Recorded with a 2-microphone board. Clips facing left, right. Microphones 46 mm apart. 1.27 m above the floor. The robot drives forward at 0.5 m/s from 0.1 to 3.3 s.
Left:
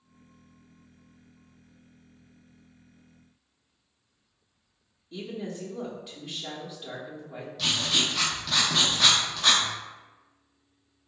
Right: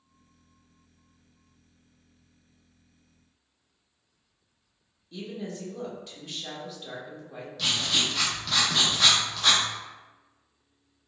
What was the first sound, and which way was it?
A woman speaking, 10° left (ahead or behind).